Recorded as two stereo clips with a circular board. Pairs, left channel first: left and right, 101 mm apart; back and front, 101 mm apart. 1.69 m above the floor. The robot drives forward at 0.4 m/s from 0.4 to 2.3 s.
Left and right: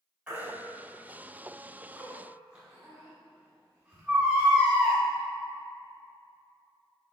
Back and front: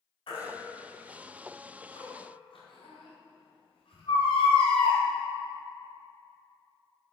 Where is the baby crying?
165° right, 3 m; by 5.0 s 170° right, 4 m.